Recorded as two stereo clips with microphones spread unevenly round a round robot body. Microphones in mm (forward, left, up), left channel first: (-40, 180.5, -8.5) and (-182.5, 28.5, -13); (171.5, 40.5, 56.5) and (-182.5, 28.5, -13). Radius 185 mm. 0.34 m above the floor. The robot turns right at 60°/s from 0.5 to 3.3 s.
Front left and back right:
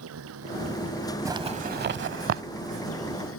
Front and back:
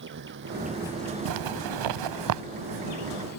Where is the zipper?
150° left; by 2.4 s 140° right.